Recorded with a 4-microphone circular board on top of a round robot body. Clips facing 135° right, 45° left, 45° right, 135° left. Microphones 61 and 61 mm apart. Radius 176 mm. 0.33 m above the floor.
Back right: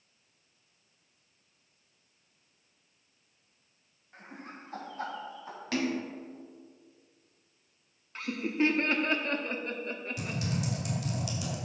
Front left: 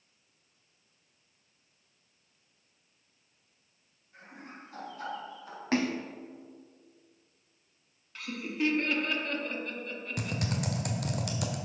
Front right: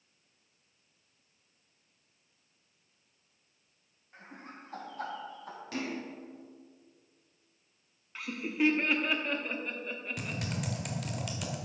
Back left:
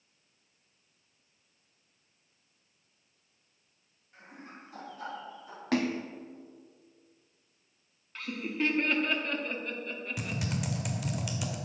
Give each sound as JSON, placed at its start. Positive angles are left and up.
{"t": 4.1, "sound": "laughter", "azimuth_deg": -100, "distance_m": 4.0}
{"t": 5.7, "sound": "a splash", "azimuth_deg": 105, "distance_m": 0.6}
{"t": 8.2, "sound": "laughter", "azimuth_deg": -120, "distance_m": 1.4}
{"t": 10.2, "sound": "typing on a keyboard", "azimuth_deg": 50, "distance_m": 1.6}